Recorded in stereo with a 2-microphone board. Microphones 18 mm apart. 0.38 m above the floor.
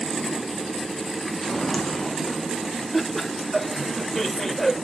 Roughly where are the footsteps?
Left.